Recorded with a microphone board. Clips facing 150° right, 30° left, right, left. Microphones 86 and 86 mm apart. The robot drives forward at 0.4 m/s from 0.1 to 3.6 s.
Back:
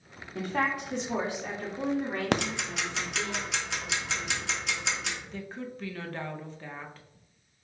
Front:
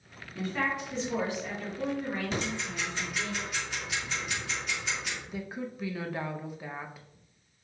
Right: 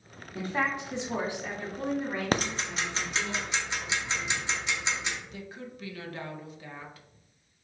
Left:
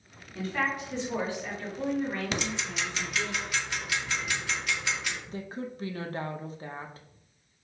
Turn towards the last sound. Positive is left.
turn(degrees=105)